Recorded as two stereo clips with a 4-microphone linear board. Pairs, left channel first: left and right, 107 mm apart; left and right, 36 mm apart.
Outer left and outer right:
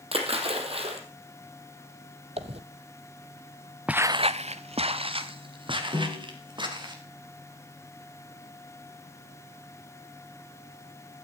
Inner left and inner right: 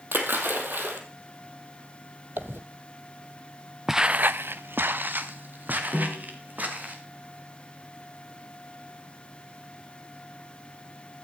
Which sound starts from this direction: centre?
Footsteps, at 3.9 s.